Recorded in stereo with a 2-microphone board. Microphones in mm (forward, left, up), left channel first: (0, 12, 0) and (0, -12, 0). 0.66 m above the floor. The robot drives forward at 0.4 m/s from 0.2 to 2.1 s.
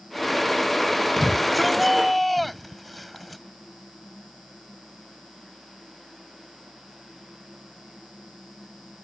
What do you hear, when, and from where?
1.2 s a shout: centre (ahead or behind)